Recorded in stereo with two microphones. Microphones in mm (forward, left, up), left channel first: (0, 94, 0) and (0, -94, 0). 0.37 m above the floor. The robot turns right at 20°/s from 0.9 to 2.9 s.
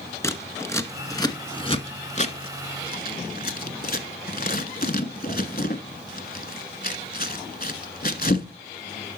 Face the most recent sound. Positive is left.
turn(degrees=55)  # may be behind; listen again after turning